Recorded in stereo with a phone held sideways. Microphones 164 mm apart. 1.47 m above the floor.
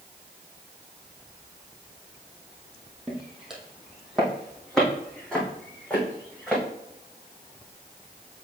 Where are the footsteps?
5° right (ahead or behind), 1.9 m; by 6.6 s 10° left (ahead or behind), 4.5 m.